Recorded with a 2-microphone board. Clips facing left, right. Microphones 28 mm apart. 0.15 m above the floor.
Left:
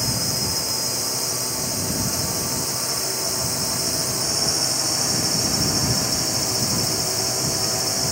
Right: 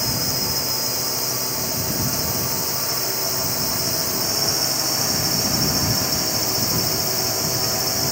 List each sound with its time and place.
0.0 s a drone: 10° right (ahead or behind)